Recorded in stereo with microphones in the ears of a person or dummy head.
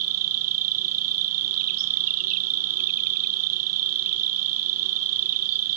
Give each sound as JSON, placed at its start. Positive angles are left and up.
{"t": 0.0, "sound": "an insect", "side_deg": -75}